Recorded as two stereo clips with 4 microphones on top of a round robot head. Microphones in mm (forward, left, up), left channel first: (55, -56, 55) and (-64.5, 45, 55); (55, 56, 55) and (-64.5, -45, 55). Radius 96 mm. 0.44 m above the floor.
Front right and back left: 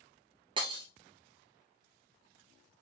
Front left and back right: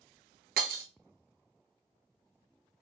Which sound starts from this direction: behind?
Breaking glass, at 0.6 s.